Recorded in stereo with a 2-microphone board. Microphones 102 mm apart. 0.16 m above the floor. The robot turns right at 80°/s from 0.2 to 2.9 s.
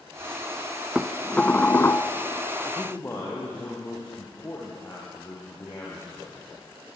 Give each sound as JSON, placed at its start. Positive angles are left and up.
{"t": 0.9, "sound": "dishes clattering", "side_deg": -5, "distance_m": 0.9}
{"t": 2.6, "sound": "a man speaking", "side_deg": 45, "distance_m": 5.0}